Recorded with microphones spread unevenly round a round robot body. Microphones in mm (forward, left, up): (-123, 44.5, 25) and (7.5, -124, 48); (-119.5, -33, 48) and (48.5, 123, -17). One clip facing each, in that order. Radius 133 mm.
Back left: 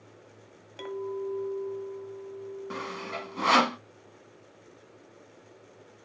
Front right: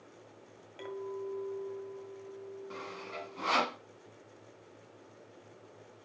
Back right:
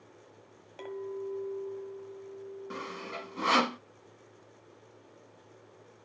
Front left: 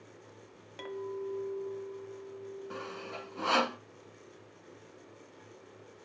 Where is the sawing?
155° left, 0.8 m.